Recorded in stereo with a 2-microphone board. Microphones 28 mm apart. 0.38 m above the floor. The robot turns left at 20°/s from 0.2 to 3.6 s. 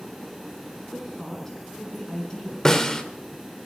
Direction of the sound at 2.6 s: 20° left (ahead or behind).